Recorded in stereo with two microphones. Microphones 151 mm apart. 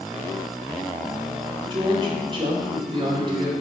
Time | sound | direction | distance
1.7 | a woman speaking | 35° right (ahead or behind) | 2.5 m